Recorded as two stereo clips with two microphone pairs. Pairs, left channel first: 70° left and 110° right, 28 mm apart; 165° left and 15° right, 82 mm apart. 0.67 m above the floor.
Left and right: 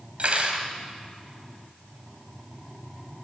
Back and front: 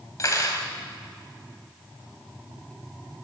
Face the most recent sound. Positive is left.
turn(degrees=-150)